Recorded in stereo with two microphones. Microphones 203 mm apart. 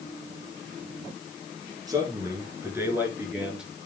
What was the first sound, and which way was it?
A man speaking, 20° right (ahead or behind).